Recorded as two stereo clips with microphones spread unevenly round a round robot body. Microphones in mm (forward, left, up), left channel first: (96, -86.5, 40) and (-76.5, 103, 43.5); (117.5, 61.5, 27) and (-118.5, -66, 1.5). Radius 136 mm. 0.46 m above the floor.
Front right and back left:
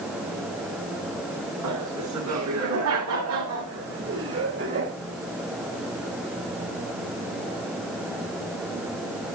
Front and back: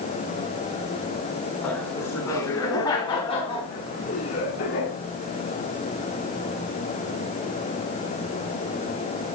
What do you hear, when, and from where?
1.6 s laughter: 115° left, 6 m; by 4.9 s 75° left, 4.5 m